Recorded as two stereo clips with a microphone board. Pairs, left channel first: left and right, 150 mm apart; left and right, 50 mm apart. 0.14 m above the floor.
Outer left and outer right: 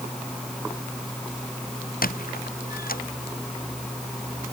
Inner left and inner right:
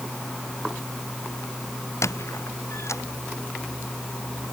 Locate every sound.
2.0 s a squeak: 75° left (ahead or behind)